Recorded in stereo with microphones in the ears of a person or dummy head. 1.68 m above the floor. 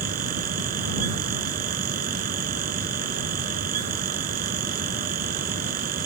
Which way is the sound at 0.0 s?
50° right (ahead or behind).